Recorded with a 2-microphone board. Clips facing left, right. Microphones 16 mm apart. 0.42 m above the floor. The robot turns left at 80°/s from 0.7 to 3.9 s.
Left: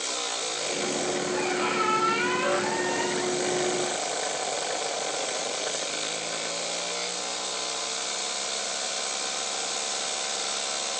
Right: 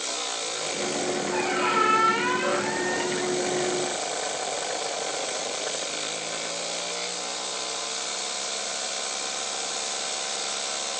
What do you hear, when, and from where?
1.3 s a squeak: 95° right, 4.5 m; by 3.3 s 105° left, 4.5 m